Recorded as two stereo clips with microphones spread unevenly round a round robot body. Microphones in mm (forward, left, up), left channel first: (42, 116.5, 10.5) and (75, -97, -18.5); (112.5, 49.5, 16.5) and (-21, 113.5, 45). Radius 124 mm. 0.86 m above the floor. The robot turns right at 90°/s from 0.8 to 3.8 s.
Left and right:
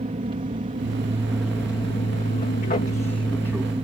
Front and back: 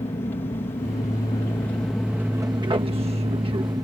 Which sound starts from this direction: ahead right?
An aircraft, at 0.0 s.